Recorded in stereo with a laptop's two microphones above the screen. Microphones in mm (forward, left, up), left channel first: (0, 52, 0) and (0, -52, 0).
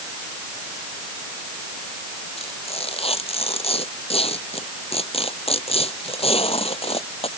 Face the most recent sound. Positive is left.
turn(degrees=80)